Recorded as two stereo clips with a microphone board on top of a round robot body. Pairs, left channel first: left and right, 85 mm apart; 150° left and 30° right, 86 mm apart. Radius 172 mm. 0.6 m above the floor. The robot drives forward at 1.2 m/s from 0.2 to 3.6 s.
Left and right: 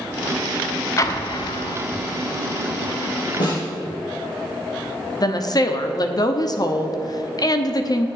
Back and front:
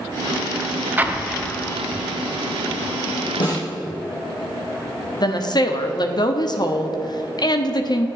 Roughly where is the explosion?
Ahead left.